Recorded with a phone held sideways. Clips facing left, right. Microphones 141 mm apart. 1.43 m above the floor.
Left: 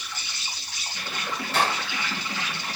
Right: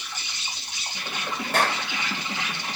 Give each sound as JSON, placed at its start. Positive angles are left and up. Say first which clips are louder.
{"t": 0.0, "sound": "an insect", "louder": "even", "side_deg": -20, "distance_m": 4.0}
{"t": 1.5, "sound": "a clap", "louder": "right 1 dB", "side_deg": -55, "distance_m": 6.5}